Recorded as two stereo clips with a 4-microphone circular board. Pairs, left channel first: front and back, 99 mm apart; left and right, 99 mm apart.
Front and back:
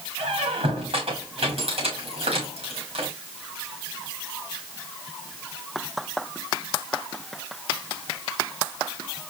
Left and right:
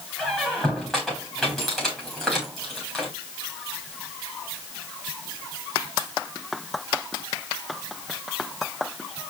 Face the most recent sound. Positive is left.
turn(degrees=175)